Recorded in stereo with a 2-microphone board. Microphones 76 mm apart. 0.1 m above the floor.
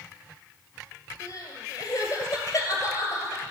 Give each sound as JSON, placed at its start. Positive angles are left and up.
{"t": 1.2, "sound": "crying", "side_deg": 40, "distance_m": 1.9}